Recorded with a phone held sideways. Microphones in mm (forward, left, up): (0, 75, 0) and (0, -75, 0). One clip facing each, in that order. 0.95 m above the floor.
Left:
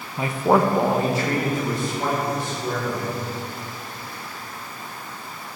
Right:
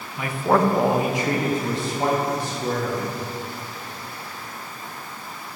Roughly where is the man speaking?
Left.